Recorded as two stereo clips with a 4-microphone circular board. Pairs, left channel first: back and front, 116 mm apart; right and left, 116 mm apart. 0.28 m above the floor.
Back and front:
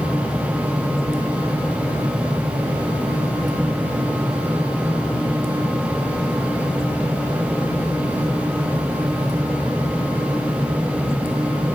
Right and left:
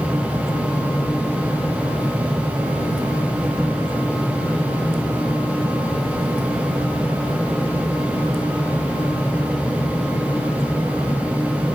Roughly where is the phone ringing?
I don't hear a phone ringing.